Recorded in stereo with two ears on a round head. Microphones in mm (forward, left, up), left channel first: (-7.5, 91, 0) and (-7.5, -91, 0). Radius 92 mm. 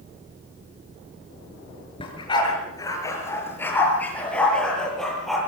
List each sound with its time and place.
2.0 s a dog barking: 25° left (ahead or behind), 5.5 m; by 5.4 s centre (ahead or behind), 8.5 m